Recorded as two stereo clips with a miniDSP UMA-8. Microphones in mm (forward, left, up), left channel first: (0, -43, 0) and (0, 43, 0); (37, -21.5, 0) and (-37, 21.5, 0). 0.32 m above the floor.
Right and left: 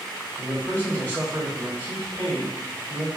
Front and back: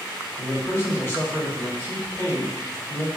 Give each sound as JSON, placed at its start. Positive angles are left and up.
{"t": 0.4, "sound": "a man speaking", "azimuth_deg": -40, "distance_m": 1.0}